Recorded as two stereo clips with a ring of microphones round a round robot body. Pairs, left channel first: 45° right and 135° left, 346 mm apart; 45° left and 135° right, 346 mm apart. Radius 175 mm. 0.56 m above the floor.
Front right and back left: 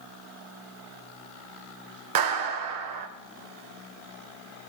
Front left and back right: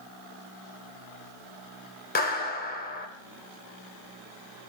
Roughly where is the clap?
Left.